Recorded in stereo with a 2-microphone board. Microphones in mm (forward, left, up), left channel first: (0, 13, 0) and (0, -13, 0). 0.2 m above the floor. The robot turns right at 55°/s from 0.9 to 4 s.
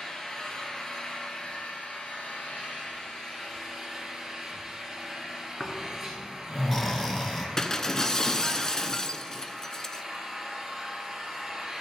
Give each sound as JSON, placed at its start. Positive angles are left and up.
{"t": 0.0, "sound": "an engine running", "azimuth_deg": 15, "distance_m": 3.0}
{"t": 5.6, "sound": "snoring", "side_deg": 20, "distance_m": 1.1}
{"t": 7.6, "sound": "breaking glass", "side_deg": 25, "distance_m": 0.5}